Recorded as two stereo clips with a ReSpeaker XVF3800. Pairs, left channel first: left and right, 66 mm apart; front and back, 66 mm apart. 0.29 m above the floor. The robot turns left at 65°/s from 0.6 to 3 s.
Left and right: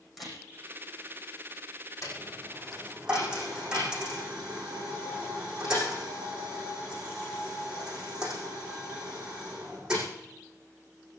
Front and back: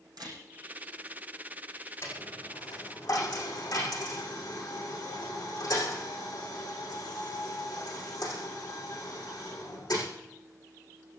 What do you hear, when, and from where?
0.2 s a camera shutter: straight behind, 9.5 m
2.0 s a dropped coin: 50° left, 7 m; by 10.1 s 10° right, 7 m